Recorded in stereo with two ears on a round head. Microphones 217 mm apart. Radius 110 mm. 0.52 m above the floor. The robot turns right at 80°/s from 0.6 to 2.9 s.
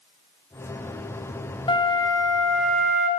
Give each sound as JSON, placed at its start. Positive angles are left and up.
{"t": 1.7, "sound": "a flute", "side_deg": 20, "distance_m": 0.8}